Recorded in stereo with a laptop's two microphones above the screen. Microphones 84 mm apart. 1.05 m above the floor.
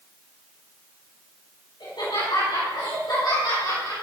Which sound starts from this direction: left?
Laughter, at 1.8 s.